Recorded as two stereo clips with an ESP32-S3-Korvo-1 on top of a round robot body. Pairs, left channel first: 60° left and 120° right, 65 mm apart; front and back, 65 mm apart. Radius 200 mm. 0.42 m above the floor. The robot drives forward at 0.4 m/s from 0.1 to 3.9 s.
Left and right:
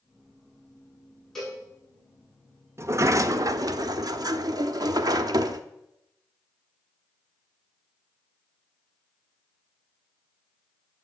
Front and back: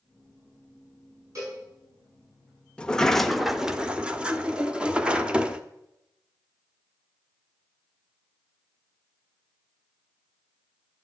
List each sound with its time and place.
1.4 s a cowbell: 145° left, 9 m
2.8 s a sliding door: 75° right, 0.9 m; by 5.6 s 105° right, 0.9 m